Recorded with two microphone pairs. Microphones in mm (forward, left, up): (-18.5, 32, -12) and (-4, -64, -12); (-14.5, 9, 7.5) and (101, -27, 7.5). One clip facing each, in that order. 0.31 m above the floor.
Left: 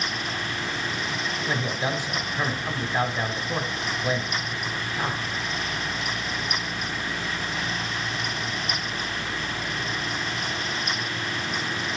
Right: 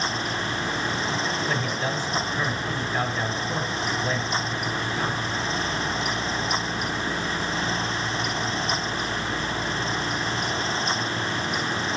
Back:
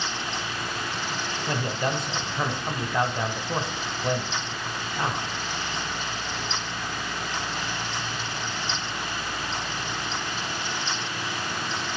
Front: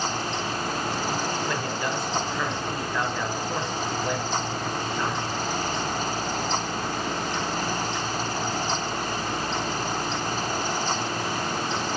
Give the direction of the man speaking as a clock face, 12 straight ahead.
7 o'clock.